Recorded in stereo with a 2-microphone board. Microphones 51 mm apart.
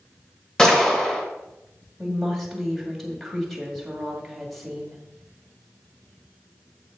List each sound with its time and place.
0.6 s a gunshot: 15° left (ahead or behind), 1.5 m
2.0 s a woman speaking: centre (ahead or behind), 2 m